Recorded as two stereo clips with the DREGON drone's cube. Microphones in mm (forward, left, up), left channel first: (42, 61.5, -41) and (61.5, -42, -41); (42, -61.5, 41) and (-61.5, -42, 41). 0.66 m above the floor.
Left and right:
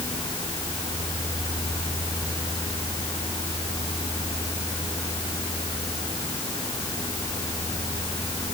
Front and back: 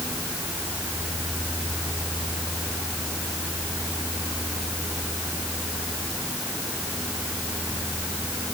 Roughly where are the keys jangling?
I don't hear keys jangling.